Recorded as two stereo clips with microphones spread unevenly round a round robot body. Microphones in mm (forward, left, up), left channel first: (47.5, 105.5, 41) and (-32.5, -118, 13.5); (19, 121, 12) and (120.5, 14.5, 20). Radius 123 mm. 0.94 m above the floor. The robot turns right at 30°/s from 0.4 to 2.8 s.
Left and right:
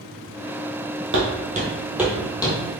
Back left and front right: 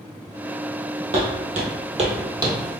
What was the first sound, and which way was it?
Footsteps, 75° right.